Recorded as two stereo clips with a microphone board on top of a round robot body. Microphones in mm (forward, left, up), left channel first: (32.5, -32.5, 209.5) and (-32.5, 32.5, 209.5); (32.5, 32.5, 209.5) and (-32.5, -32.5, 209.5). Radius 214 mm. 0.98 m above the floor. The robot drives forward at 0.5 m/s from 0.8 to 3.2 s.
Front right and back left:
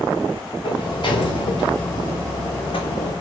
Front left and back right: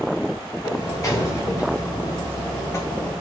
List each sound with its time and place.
0.6 s a sliding door: 10° right, 3 m; by 3.1 s 20° right, 2.0 m